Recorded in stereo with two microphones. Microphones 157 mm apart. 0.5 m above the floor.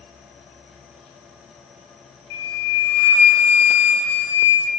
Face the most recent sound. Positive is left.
turn(degrees=30)  # may be behind; listen again after turning